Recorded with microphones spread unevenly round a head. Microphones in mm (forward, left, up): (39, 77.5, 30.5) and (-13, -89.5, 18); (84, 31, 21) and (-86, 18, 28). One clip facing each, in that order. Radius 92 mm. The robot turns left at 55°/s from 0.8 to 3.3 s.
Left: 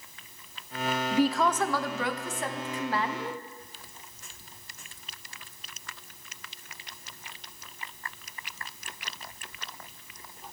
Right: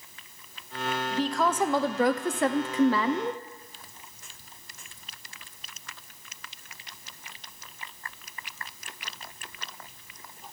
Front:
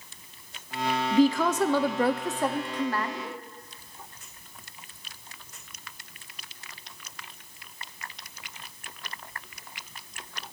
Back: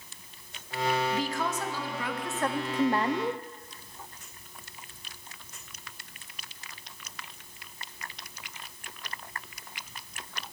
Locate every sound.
1.1 s a woman speaking: 5° right, 0.7 m; by 3.4 s 125° right, 0.7 m